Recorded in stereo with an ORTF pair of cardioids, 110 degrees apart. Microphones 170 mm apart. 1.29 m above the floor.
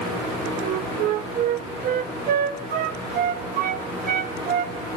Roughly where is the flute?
Ahead right.